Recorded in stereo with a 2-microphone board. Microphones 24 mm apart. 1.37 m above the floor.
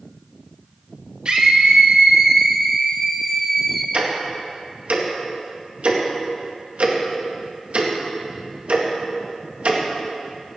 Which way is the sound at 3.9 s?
70° right (ahead or behind).